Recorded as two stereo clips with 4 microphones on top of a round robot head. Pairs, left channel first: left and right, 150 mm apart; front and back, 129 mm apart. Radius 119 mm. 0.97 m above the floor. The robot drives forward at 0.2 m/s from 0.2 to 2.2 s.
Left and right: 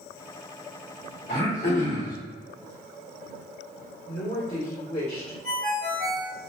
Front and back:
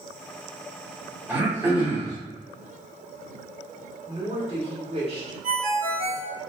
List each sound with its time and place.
1.3 s throat clearing: 110° left, 1.6 m; by 2.2 s 115° left, 1.7 m
4.1 s a woman speaking: 135° left, 1.8 m
5.4 s a ringtone: 175° right, 1.2 m